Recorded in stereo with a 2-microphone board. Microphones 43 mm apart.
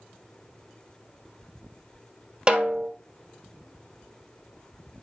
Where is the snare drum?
25° right (ahead or behind), 1.3 m.